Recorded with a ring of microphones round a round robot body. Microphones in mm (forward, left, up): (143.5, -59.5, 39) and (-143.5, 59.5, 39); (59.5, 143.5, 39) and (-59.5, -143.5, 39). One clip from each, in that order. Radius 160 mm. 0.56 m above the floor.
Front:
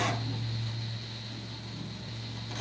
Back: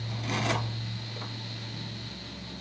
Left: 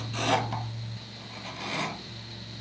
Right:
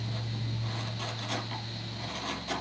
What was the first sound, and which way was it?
Only background noise.